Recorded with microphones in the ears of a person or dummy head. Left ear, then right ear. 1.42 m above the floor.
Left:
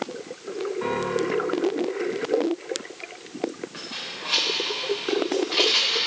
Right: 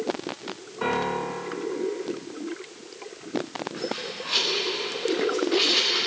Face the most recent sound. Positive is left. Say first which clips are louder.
# right 2 dB
turn(degrees=10)  # may be behind; listen again after turning